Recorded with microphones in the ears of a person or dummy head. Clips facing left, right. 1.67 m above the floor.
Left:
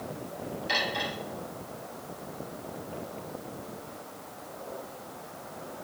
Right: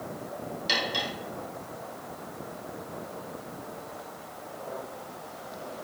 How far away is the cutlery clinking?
About 4.5 m.